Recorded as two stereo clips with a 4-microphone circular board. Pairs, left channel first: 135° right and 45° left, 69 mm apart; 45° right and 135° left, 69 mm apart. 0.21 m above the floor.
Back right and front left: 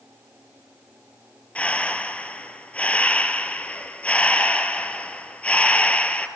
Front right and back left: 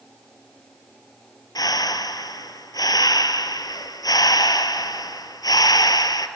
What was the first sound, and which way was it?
Breathing, 65° right.